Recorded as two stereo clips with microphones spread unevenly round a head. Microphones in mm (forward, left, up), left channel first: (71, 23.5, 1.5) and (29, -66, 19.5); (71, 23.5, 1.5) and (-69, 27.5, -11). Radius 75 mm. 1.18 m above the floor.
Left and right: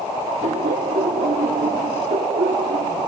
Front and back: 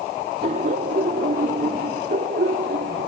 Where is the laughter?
135° right; by 3.1 s 140° right.